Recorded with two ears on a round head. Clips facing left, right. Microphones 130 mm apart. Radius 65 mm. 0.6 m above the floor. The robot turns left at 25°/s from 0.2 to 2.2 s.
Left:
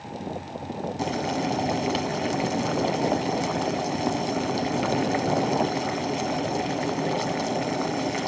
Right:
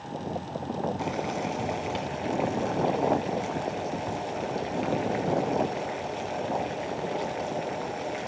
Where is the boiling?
125° left, 1.3 m; by 8.3 s 95° left, 1.3 m.